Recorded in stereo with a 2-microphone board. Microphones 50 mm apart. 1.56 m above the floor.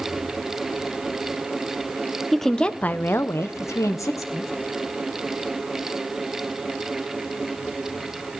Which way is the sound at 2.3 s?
Centre (ahead or behind).